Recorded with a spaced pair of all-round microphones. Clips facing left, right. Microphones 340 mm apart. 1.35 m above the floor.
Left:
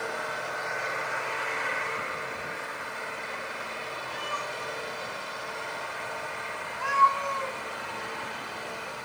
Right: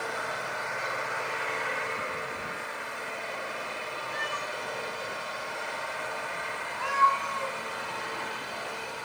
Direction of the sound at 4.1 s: 35° right (ahead or behind).